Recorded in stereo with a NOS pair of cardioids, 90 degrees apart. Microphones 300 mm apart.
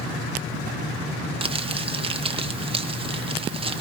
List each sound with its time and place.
1.4 s crumpling: 20° right, 0.9 m